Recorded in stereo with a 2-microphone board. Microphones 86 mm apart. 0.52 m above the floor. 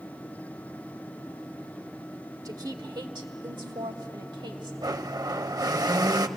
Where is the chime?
I don't hear a chime.